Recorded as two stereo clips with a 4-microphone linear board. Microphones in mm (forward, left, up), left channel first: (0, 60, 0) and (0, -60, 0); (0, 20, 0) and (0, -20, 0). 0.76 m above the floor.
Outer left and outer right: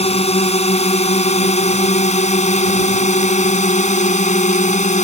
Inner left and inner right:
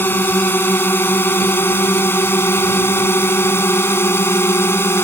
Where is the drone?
60° left (ahead or behind); by 5.0 s 80° left.